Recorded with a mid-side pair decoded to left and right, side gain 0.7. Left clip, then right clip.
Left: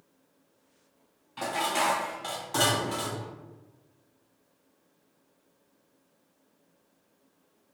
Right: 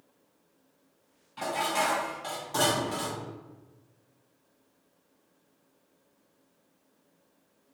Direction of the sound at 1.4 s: 20° left.